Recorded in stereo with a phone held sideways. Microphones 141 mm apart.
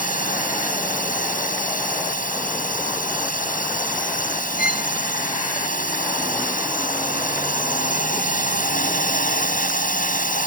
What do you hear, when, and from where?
0.0 s a drone: 85° left
4.6 s a violin: 10° right (ahead or behind)